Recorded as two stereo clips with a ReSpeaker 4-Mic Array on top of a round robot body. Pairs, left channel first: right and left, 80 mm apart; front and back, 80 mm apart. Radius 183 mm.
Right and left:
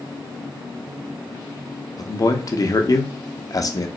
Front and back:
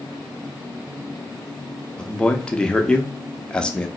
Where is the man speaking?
75° right, 0.9 m.